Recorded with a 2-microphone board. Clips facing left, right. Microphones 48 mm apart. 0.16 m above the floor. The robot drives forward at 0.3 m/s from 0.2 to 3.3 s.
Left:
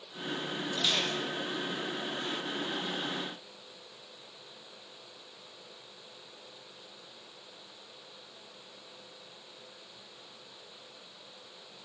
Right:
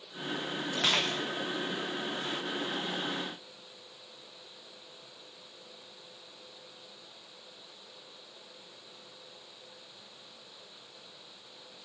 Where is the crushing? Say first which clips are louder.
Right 2 dB; 70° right (ahead or behind), 4 m; by 1.2 s 65° right (ahead or behind), 4 m.